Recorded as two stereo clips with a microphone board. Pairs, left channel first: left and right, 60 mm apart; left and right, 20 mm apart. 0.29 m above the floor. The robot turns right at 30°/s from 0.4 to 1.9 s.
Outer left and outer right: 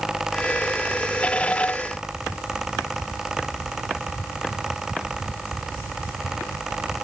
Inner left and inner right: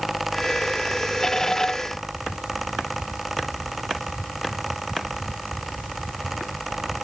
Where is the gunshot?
No gunshot in this recording.